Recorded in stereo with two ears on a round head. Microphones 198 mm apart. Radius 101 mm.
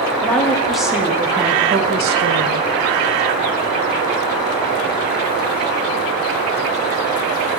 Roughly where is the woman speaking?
Centre.